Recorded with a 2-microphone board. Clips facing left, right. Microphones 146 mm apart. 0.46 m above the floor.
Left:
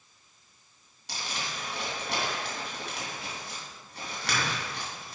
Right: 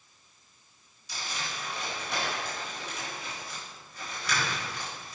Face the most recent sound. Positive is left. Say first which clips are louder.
# left 1 dB
turn(degrees=75)  # may be behind; listen again after turning